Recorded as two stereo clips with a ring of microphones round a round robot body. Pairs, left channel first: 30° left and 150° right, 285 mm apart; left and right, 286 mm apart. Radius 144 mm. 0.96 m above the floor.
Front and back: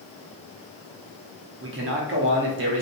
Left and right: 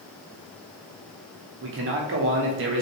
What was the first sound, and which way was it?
A man speaking, 120° right.